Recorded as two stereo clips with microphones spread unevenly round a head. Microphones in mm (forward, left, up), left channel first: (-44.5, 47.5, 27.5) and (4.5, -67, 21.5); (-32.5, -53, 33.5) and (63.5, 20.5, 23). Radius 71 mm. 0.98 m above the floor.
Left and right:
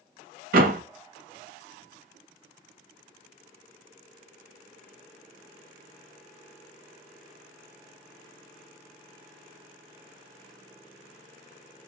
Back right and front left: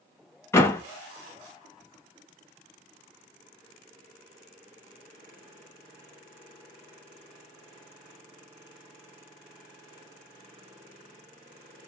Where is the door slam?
70° right, 0.8 m.